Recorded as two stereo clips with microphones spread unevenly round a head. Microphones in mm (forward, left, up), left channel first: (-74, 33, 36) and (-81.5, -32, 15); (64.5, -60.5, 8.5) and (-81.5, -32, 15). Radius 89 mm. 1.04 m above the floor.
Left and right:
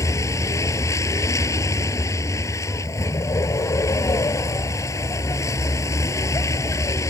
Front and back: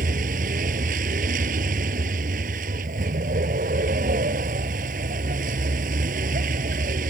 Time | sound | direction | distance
0.0 | a vehicle | 120° left | ?